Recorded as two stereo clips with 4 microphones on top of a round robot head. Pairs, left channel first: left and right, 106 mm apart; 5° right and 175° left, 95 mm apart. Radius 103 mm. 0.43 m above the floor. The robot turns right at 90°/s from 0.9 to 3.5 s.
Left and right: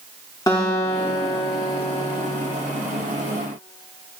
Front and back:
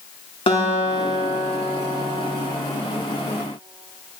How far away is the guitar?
About 2 m.